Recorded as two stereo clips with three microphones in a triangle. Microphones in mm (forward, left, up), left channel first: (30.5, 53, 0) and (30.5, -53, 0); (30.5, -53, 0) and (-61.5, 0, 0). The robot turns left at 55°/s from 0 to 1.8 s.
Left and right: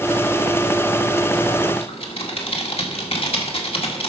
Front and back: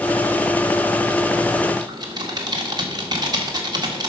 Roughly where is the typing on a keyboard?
Left.